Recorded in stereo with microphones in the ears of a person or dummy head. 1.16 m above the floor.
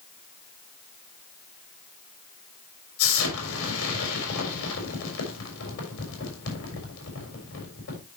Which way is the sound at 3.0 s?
75° left (ahead or behind).